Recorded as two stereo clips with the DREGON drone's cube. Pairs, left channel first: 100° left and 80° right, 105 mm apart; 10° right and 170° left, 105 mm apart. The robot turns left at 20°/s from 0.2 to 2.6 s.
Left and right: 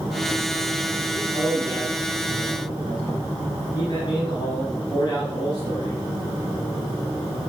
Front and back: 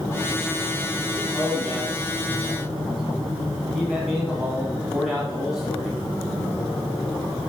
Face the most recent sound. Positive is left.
turn(degrees=80)